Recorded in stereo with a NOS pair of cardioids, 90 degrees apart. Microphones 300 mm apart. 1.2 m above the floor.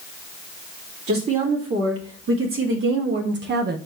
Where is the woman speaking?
50° right, 2 m; by 3.8 s 35° right, 0.6 m.